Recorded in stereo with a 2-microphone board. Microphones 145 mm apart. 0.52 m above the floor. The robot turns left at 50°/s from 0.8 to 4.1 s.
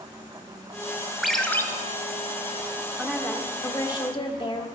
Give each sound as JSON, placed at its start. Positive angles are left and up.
{"t": 1.2, "sound": "a ringtone", "side_deg": 0, "distance_m": 1.1}
{"t": 3.0, "sound": "a woman speaking", "azimuth_deg": -175, "distance_m": 1.3}